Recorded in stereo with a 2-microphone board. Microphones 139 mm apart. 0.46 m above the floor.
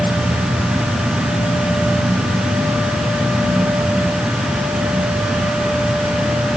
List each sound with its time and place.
Only background noise.